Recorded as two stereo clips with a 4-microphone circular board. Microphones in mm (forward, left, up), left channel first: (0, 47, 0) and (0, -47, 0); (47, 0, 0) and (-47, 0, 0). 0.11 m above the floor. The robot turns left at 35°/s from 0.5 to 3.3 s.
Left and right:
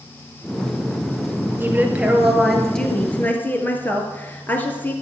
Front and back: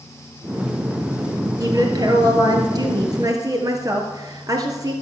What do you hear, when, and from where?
1.6 s a woman speaking: 150° right, 2 m; by 4.9 s 150° left, 2 m